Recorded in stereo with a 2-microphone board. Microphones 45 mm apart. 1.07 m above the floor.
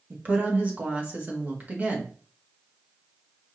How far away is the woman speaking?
About 1.1 m.